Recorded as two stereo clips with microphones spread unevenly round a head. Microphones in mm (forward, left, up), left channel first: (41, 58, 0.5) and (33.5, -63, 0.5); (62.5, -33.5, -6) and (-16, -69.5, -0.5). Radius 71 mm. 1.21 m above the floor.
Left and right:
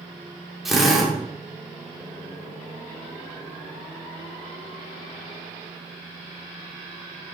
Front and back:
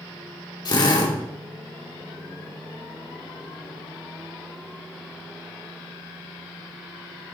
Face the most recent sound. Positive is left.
turn(degrees=-5)